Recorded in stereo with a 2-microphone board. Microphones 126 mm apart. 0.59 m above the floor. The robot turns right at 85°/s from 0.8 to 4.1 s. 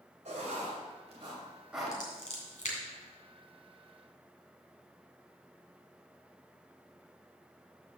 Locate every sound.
0.2 s writing: 75° right (ahead or behind), 2.5 m; by 2.0 s 15° left (ahead or behind), 2.5 m
1.9 s scissors: 25° left (ahead or behind), 2.5 m; by 2.8 s 85° left, 2.5 m